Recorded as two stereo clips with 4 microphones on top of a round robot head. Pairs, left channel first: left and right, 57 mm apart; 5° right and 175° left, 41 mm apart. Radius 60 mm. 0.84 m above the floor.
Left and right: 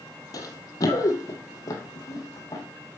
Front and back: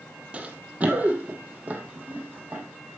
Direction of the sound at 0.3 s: 115° left.